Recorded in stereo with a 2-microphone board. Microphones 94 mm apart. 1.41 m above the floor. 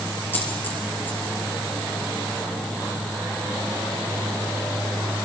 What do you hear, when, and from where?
0.3 s a dropped coin: 20° left (ahead or behind), 5 m